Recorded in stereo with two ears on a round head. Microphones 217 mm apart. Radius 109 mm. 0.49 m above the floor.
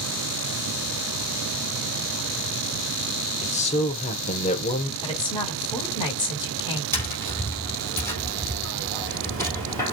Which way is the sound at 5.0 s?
20° left (ahead or behind).